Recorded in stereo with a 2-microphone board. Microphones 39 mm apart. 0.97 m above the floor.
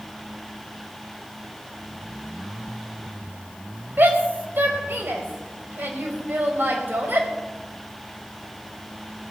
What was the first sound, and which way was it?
A shout, 65° right (ahead or behind).